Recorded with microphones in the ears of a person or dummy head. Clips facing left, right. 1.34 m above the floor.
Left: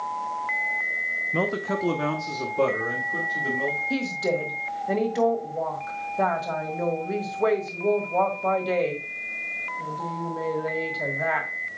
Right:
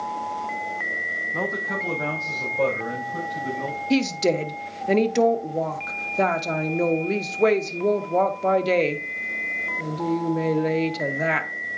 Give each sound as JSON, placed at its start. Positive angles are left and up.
{"t": 1.3, "sound": "a man speaking", "side_deg": 35, "distance_m": 0.7}
{"t": 3.9, "sound": "a woman speaking", "side_deg": -40, "distance_m": 0.9}